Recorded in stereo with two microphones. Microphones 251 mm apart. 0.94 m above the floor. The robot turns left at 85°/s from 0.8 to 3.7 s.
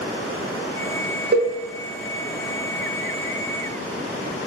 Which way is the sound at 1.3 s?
45° right (ahead or behind).